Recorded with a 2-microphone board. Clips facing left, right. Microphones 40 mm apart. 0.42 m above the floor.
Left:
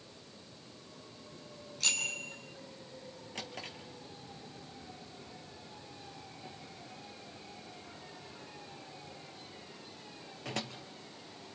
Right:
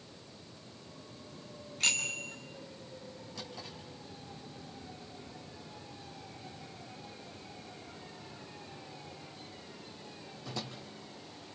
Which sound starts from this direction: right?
A bicycle bell, at 1.8 s.